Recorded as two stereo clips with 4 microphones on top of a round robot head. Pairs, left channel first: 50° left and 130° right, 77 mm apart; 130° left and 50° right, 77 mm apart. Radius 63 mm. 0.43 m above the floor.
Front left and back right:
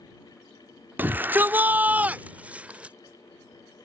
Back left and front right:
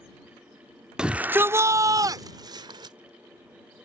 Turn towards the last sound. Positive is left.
turn(degrees=-55)